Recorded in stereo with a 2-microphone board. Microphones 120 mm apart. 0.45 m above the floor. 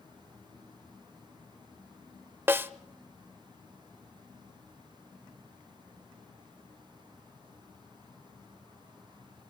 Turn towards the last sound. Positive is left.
turn(degrees=-20)  # may be behind; listen again after turning